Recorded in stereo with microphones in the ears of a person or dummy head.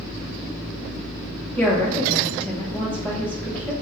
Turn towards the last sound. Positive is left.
turn(degrees=15)  # may be behind; listen again after turning